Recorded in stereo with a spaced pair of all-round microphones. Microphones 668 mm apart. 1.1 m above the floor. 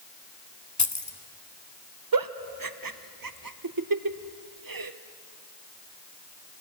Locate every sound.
0.8 s keys jangling: 25° left (ahead or behind), 1.0 m
2.1 s a giggle: 35° right (ahead or behind), 0.6 m